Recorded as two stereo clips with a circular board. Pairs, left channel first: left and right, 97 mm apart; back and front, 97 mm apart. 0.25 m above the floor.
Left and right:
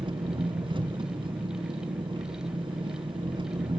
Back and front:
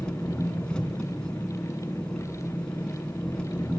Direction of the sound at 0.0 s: 100° right.